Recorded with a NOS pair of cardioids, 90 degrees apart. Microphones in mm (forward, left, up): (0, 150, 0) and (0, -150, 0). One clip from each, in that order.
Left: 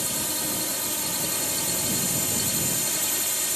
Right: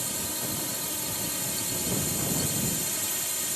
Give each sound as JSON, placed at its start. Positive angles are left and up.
{"t": 0.0, "sound": "a drone", "azimuth_deg": 35}